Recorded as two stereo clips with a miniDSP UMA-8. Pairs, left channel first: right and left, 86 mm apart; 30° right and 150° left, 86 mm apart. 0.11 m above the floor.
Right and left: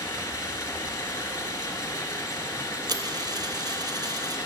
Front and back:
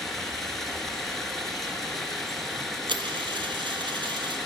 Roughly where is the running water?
Behind right.